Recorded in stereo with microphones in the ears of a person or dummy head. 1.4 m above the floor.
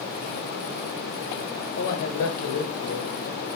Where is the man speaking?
70° left (ahead or behind), 1.3 m.